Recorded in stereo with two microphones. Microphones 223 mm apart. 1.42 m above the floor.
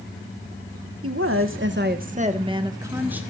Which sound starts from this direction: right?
A woman speaking, at 1.0 s.